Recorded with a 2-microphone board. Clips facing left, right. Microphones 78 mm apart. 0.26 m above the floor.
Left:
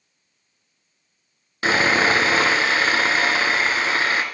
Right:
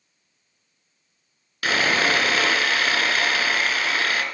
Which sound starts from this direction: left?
Sawing, at 1.6 s.